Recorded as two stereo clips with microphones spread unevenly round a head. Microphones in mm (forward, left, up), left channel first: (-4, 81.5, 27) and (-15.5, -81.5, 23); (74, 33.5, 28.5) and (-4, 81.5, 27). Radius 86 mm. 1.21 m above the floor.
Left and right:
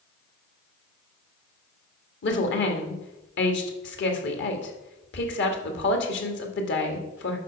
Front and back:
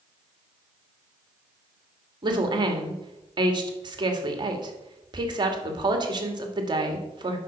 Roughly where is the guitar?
I don't hear a guitar.